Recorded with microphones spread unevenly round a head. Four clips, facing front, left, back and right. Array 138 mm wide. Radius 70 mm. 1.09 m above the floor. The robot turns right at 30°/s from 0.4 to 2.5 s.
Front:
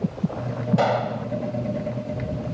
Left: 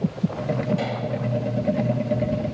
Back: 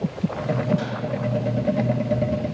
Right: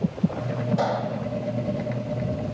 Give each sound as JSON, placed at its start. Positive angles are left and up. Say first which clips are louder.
{"t": 0.8, "sound": "a gunshot", "louder": "right 2 dB, front 5 dB", "azimuth_deg": -15}